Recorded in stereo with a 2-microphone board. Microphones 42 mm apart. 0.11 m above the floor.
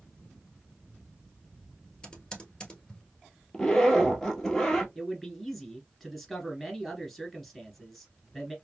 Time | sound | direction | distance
2.0 | typing on a keyboard | 20° left (ahead or behind) | 1.3 m
3.5 | a zipper | 10° left (ahead or behind) | 1.1 m
5.0 | a man speaking | 5° left (ahead or behind) | 1.2 m